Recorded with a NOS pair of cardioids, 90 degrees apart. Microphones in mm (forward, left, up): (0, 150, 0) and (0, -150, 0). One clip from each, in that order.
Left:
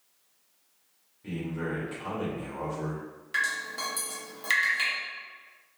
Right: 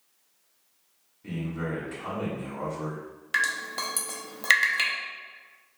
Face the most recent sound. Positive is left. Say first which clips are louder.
# right 2 dB
turn(degrees=-35)